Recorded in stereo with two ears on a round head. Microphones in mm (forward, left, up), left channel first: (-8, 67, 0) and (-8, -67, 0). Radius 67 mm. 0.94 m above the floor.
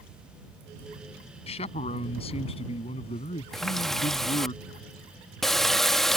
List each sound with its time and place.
1.5 s a man speaking: 45° left (ahead or behind); by 4.5 s 40° left (ahead or behind)
3.5 s a running tap: centre (ahead or behind)